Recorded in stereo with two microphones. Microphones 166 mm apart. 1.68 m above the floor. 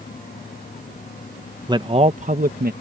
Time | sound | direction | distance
1.7 | a man speaking | 25° right (ahead or behind) | ?